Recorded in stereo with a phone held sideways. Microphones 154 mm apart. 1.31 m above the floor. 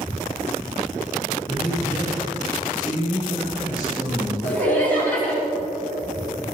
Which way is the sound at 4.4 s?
10° left (ahead or behind).